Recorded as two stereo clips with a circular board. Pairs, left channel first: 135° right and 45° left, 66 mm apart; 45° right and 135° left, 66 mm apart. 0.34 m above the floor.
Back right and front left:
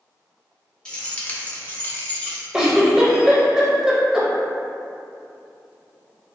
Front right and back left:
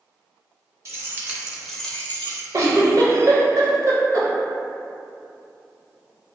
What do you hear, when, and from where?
0.8 s keys jangling: 155° left, 0.7 m; by 2.4 s 75° right, 0.7 m
2.5 s a giggle: 125° left, 0.5 m